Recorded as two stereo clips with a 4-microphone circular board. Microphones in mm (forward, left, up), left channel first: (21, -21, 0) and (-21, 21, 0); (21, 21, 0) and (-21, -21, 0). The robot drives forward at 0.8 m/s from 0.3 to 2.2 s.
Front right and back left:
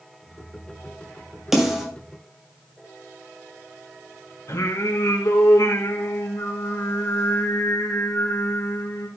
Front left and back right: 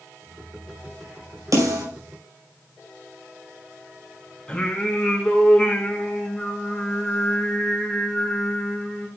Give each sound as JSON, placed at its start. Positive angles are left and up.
{"t": 1.5, "sound": "a snare drum", "azimuth_deg": -140, "distance_m": 5.5}
{"t": 4.5, "sound": "singing", "azimuth_deg": -30, "distance_m": 3.0}